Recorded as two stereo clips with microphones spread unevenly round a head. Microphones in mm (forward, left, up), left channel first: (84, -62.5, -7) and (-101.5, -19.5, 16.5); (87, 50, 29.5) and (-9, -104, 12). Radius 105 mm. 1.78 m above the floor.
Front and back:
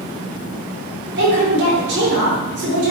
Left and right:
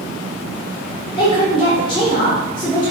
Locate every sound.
1.2 s a woman speaking: 125° left, 2.5 m